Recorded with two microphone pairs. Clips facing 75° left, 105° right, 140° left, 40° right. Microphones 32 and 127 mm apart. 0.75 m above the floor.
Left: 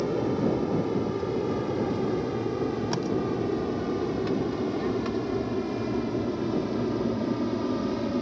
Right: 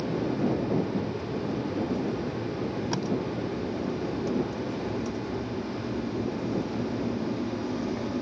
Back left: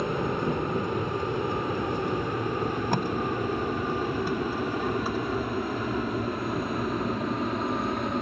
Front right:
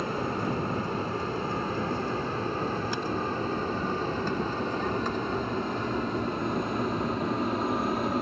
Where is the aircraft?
70° left; by 8.2 s 45° left.